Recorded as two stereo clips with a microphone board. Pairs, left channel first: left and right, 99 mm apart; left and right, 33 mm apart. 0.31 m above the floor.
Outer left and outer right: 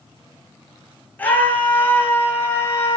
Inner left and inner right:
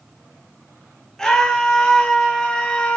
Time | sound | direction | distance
1.2 | a scream | 15° left (ahead or behind) | 6 m